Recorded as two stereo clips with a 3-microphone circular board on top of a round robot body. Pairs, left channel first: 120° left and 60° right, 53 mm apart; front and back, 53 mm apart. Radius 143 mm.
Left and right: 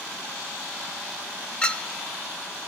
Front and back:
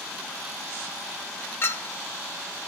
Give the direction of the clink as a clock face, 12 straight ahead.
10 o'clock.